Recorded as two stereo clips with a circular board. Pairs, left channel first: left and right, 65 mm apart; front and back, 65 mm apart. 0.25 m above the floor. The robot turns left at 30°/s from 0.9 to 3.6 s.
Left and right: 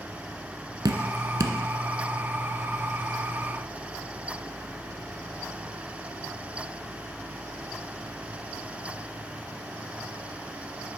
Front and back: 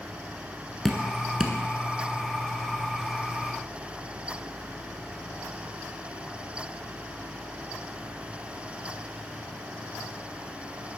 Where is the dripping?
85° right, 0.5 m; by 1.6 s 105° right, 0.5 m.